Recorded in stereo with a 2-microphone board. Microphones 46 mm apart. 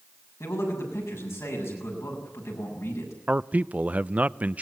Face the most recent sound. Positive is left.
turn(degrees=-30)  # may be behind; listen again after turning